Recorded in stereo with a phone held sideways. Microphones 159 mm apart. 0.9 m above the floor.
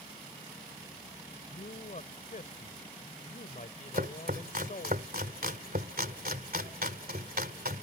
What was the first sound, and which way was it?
A man speaking, 55° left (ahead or behind).